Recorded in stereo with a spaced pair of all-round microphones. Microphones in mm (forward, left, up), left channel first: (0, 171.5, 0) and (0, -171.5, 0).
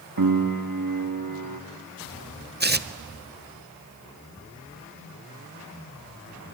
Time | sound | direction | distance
0.2 | a piano | 65° right (ahead or behind) | 1.1 m
2.6 | tearing paper | 30° right (ahead or behind) | 0.5 m
4.4 | a cupboard door | 10° left (ahead or behind) | 10 m